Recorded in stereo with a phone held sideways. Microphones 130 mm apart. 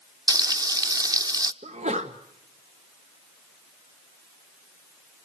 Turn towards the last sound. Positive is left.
turn(degrees=-65)  # may be behind; listen again after turning